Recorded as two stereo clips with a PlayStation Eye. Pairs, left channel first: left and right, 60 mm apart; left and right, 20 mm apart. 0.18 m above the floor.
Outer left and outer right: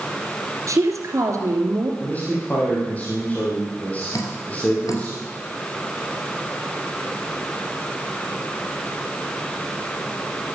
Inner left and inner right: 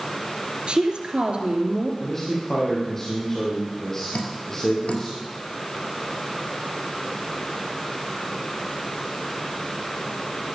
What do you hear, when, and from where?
0.7 s a woman speaking: 60° right (ahead or behind), 3 m
2.0 s a man speaking: 25° left (ahead or behind), 5.5 m
4.1 s dripping: 65° left (ahead or behind), 3 m